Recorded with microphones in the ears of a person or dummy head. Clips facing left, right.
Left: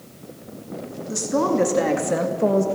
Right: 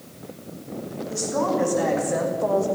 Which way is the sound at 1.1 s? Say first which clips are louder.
Left 3 dB; 55° left (ahead or behind).